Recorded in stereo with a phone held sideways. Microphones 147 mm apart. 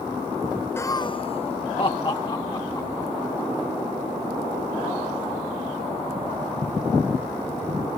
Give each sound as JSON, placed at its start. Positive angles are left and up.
{"t": 0.8, "sound": "laughter", "side_deg": 15}